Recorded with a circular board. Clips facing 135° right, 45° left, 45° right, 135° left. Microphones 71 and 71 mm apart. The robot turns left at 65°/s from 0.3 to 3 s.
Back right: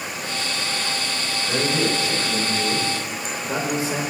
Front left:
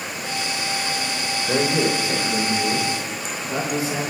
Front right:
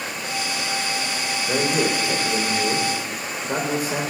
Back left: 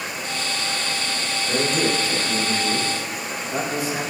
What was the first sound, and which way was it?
A man speaking, 20° left.